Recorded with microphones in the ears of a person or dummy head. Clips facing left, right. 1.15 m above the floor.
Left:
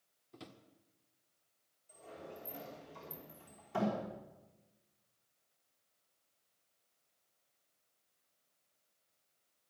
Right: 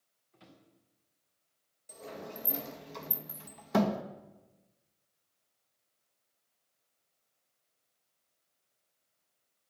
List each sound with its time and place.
0.3 s a drawer: 65° left (ahead or behind), 1.6 m
1.9 s a sliding door: 75° right (ahead or behind), 1.3 m